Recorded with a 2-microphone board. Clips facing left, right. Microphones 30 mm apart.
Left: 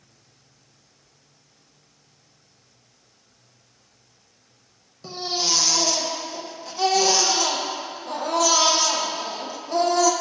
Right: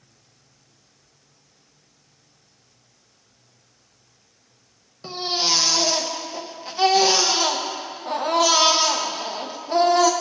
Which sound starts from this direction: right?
A baby crying, at 5.0 s.